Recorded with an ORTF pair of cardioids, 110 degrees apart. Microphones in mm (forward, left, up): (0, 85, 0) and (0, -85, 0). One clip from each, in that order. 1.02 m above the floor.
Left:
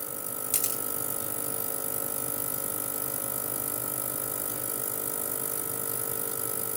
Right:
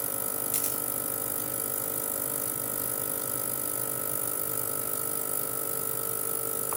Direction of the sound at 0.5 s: 25° left.